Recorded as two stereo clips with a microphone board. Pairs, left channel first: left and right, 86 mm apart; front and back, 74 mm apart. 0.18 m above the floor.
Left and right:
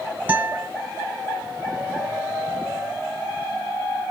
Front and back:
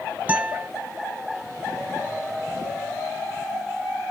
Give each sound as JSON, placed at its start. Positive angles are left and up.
{"t": 0.3, "sound": "a guitar", "azimuth_deg": -135, "distance_m": 1.3}